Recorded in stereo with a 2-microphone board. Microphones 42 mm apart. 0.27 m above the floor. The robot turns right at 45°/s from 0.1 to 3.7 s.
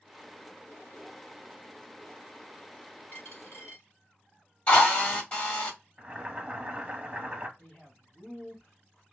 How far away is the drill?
About 1.8 m.